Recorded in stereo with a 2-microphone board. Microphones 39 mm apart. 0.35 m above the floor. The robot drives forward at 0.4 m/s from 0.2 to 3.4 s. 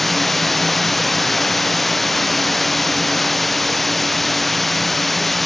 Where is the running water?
Centre (ahead or behind).